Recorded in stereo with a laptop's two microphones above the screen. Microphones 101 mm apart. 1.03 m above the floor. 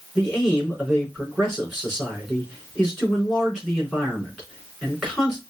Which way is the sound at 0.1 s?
5° left (ahead or behind).